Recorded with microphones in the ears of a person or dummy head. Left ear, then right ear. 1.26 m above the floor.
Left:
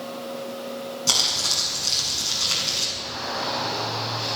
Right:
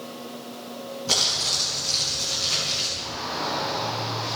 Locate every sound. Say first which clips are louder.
1.1 s crumpling: left 1 dB; 85° left, 7 m
3.0 s a shout: left 1 dB; 75° left (ahead or behind), 7.5 m